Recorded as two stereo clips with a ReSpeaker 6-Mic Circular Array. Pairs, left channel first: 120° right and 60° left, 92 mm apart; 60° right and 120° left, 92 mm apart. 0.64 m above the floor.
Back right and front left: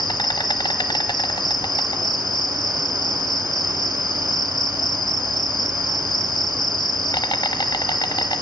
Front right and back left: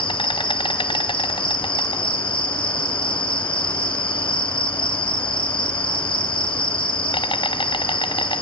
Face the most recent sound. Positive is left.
turn(degrees=-80)